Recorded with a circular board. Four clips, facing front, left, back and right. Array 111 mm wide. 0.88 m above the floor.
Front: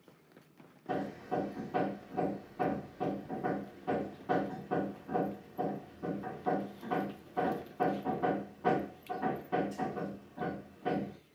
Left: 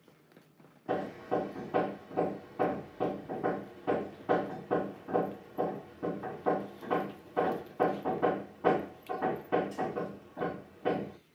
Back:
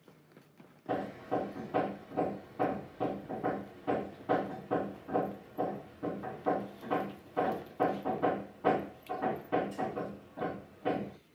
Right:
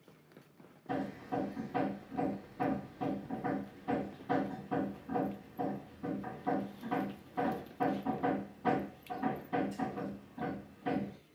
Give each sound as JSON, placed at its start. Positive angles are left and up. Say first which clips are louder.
{"t": 0.9, "sound": "hammering", "louder": "left 4 dB, back 2 dB", "azimuth_deg": 100, "distance_m": 1.9}